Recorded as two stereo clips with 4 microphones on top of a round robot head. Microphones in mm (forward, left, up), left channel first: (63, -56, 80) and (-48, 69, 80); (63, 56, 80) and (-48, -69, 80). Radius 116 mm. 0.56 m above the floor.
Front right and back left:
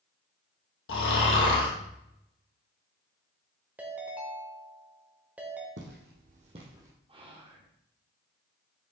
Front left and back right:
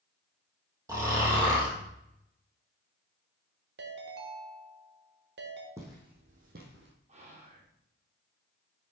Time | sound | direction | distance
0.9 | snoring | 60° right | 3 m
3.8 | a ringtone | 145° right | 1.3 m
5.8 | footsteps | 155° left | 2.0 m
7.1 | whispering | 175° right | 1.7 m